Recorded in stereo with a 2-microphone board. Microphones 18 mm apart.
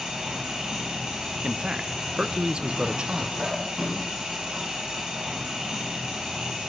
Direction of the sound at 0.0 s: 85° right.